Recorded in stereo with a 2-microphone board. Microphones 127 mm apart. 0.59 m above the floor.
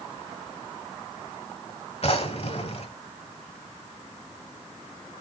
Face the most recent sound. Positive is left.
turn(degrees=55)  # may be behind; listen again after turning